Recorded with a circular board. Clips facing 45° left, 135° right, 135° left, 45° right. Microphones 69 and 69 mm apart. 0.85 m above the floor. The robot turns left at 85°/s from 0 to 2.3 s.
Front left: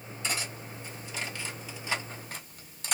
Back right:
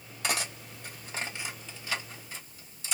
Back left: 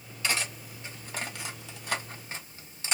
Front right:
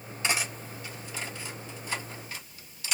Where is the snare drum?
No snare drum in this recording.